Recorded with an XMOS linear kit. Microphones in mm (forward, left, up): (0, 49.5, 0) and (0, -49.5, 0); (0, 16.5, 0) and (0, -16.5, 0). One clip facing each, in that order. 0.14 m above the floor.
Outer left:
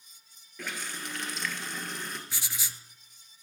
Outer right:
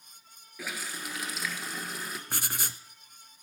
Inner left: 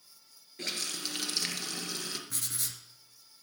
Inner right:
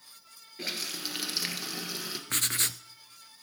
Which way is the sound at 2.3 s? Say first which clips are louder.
Outer right 5 dB, inner right 9 dB; 55° right (ahead or behind).